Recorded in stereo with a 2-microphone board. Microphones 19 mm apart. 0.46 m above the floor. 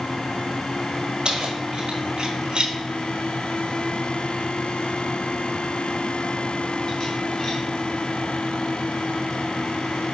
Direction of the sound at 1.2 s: 50° right (ahead or behind).